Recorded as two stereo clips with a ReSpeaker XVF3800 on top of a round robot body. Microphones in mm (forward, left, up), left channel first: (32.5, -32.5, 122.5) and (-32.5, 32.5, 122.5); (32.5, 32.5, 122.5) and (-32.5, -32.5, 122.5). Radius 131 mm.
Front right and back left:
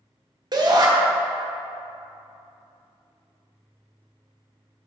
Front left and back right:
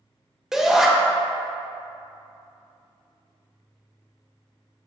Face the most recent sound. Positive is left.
turn(degrees=140)